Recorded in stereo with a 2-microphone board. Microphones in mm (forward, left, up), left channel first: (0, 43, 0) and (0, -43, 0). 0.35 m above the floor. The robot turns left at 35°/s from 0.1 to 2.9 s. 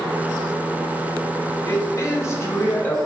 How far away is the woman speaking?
About 1.9 m.